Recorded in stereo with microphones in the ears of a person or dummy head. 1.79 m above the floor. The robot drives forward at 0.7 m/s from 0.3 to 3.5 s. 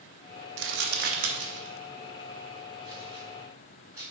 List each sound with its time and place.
0.6 s crumpling: 60° right (ahead or behind), 0.7 m; by 4.0 s 15° right (ahead or behind), 2.5 m